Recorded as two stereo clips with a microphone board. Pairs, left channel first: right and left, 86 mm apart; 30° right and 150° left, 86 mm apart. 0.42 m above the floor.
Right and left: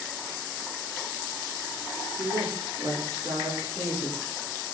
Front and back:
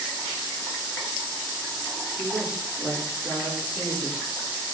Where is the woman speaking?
95° left, 5 m; by 4.2 s 110° left, 5.5 m.